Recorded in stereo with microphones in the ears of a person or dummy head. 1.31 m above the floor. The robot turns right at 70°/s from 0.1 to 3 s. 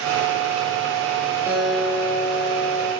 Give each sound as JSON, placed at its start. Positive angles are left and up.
{"t": 1.5, "sound": "a guitar", "azimuth_deg": -15, "distance_m": 2.0}